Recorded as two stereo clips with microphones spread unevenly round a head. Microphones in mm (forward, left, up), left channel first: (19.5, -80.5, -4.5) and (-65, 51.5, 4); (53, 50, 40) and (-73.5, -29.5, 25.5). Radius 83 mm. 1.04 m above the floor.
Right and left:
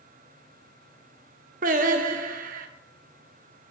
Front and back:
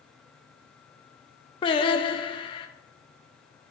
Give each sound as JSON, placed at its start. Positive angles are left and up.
{"t": 1.6, "sound": "singing", "azimuth_deg": 85, "distance_m": 0.7}